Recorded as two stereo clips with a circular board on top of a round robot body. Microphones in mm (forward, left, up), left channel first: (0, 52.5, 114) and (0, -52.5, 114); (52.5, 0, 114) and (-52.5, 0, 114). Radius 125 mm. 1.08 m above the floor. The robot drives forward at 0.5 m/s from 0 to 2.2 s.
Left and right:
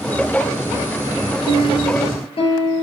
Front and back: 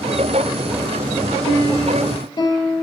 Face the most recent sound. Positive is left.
turn(degrees=55)